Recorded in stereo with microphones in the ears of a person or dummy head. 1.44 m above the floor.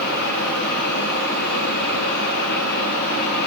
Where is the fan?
55° left (ahead or behind), 6.5 m.